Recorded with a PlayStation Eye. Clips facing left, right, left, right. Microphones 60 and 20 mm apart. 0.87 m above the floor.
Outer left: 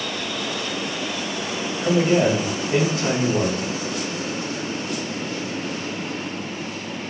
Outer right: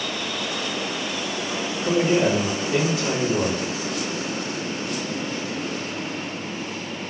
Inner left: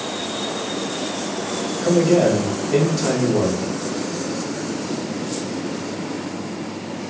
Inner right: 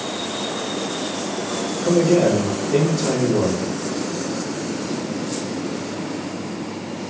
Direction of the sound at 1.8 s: 55° left (ahead or behind).